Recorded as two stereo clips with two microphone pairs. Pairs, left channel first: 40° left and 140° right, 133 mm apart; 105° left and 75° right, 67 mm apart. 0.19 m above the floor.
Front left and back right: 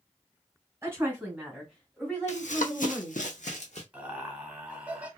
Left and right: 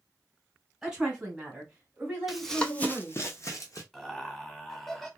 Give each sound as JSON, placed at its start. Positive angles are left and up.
{"t": 0.8, "sound": "a woman speaking", "azimuth_deg": -155, "distance_m": 1.6}
{"t": 2.3, "sound": "running footsteps", "azimuth_deg": 15, "distance_m": 0.5}
{"t": 3.9, "sound": "laughter", "azimuth_deg": 170, "distance_m": 1.0}